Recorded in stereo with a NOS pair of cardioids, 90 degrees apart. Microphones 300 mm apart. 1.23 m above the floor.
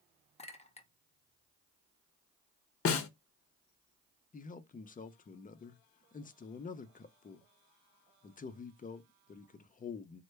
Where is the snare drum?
50° left, 0.7 m.